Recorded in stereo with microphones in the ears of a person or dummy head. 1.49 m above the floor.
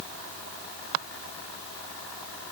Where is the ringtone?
No ringtone in this recording.